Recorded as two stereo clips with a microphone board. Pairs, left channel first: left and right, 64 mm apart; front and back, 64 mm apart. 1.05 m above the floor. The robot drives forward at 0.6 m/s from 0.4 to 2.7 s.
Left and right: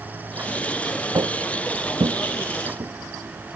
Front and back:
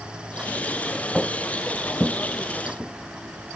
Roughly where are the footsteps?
Right.